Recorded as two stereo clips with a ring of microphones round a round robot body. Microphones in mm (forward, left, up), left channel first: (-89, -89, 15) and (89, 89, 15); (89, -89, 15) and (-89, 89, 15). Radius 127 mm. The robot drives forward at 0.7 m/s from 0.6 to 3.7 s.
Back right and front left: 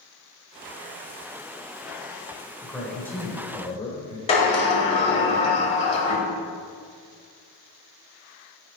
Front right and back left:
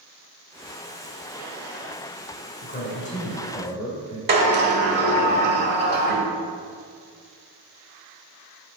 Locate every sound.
2.6 s a man speaking: 45° right, 1.7 m; by 4.2 s 95° right, 1.5 m
4.3 s a sliding door: 170° left, 1.4 m